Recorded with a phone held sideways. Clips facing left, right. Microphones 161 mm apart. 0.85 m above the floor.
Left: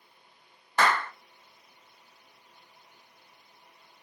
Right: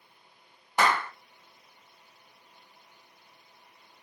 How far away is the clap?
About 0.7 m.